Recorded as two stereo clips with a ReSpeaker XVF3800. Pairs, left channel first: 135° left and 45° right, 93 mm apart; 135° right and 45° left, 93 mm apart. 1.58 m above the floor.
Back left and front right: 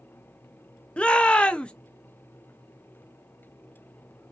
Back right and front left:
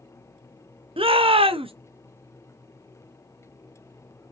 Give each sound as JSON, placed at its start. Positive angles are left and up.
{"t": 1.0, "sound": "a shout", "azimuth_deg": 55, "distance_m": 0.6}